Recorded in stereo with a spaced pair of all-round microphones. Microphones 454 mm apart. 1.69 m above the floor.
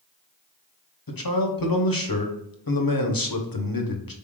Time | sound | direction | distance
1.1 | a man speaking | 50° left (ahead or behind) | 0.8 m